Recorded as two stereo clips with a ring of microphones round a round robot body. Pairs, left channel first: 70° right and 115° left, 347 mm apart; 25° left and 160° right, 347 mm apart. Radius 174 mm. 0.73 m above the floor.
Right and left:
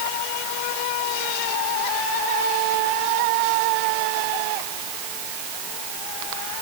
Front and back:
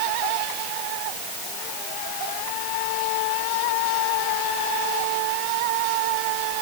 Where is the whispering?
I don't hear whispering.